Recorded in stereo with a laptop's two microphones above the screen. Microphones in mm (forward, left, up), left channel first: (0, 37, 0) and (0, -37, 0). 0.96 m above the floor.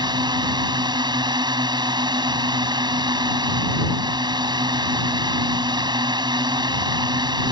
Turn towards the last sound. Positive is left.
turn(degrees=-80)